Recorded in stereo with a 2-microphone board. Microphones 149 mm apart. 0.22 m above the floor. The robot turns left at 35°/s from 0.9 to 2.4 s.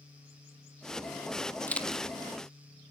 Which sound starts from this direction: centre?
A camera shutter, at 1.7 s.